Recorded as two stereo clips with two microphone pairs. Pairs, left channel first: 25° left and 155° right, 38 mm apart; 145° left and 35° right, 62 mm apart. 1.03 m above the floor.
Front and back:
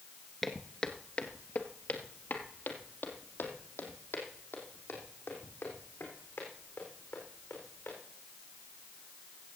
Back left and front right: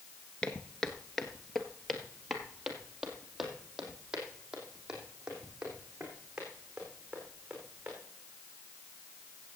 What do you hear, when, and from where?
0.4 s footsteps: 110° left, 1.0 m; by 7.9 s 45° left, 5.5 m